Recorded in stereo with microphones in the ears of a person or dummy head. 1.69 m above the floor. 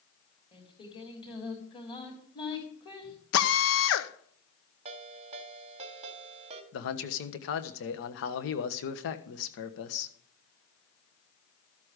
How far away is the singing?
About 3.5 m.